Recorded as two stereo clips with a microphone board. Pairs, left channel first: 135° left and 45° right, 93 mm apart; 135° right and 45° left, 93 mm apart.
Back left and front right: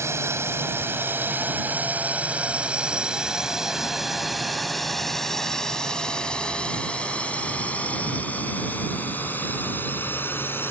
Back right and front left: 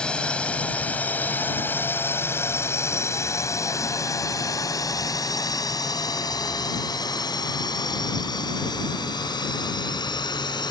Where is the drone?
65° right; by 10.7 s 160° right.